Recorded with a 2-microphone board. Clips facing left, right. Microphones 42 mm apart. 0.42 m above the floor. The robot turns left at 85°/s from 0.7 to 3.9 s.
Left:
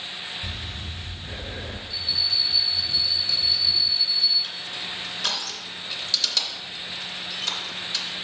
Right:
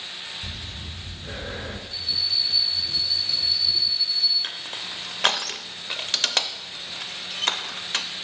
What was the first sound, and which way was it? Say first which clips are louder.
Breathing: left 2 dB; 5° right.